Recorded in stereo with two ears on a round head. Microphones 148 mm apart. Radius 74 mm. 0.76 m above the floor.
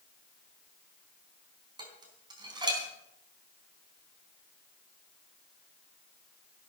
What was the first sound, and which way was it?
Dishes clattering, 25° right (ahead or behind).